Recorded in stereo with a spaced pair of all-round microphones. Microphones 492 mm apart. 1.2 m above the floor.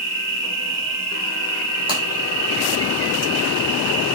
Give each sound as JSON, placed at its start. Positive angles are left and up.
{"t": 0.0, "sound": "an insect", "side_deg": 20, "distance_m": 7.0}
{"t": 1.9, "sound": "breaking glass", "side_deg": -10, "distance_m": 6.0}